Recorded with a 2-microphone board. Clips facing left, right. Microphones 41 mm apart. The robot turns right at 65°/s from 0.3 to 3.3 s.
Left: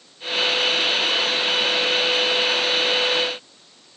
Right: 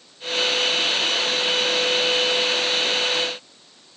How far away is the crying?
No crying in this recording.